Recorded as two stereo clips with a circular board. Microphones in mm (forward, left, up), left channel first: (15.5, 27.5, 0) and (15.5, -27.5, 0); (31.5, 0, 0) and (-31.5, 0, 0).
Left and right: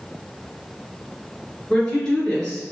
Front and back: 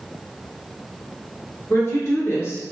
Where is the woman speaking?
15° left, 1.8 m.